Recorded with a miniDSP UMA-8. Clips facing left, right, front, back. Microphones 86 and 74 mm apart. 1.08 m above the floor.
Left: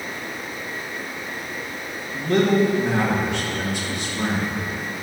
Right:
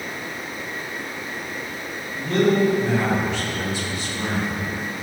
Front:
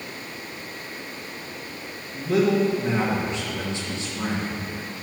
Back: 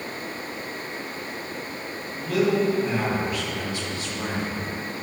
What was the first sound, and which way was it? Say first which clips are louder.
A man speaking: left 1 dB, front 2 dB; 65° left.